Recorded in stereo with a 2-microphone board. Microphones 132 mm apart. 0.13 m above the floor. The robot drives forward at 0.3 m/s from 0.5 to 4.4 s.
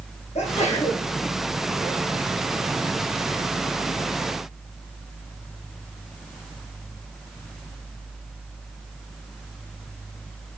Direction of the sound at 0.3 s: 50° left (ahead or behind).